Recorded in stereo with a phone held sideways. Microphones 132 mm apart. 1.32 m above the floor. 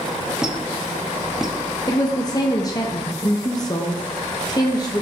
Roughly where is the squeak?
Centre.